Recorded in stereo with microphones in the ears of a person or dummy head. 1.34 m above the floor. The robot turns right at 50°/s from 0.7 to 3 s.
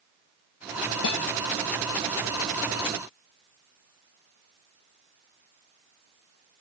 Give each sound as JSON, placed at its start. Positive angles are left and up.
{"t": 1.0, "sound": "a guitar", "side_deg": 70}